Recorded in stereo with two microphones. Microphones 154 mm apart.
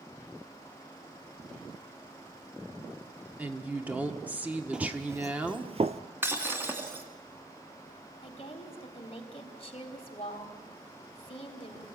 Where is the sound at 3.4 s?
10° right (ahead or behind), 1.4 m.